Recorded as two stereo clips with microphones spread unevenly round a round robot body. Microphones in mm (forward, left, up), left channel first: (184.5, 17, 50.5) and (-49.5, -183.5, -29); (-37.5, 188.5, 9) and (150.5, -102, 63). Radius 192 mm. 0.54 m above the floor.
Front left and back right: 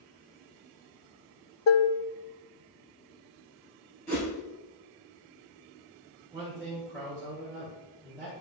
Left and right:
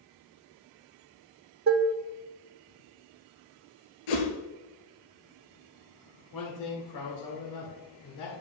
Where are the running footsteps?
I don't hear running footsteps.